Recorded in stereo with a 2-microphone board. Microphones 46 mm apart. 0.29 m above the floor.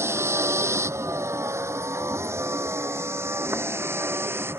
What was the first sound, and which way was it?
A vehicle, 70° right (ahead or behind).